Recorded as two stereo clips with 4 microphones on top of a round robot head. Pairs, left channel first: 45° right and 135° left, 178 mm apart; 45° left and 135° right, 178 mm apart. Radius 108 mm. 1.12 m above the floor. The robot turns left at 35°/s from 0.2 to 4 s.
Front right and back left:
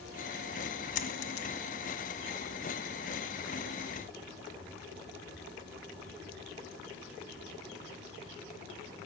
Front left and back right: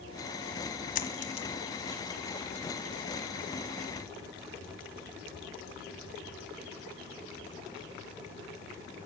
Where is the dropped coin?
Straight ahead, 1.6 m; by 1.5 s 15° right, 1.6 m.